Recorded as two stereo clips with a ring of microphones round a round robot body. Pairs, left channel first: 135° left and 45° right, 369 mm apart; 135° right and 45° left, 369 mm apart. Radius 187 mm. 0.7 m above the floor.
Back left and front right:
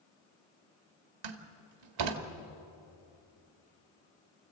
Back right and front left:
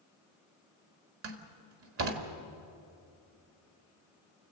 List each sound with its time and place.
1.2 s a door slam: 10° right, 1.7 m